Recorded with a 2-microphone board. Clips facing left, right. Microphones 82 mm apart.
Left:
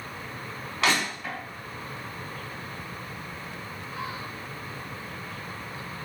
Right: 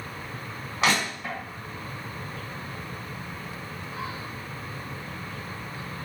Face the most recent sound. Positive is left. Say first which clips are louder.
# right 1 dB
turn(degrees=-20)  # may be behind; listen again after turning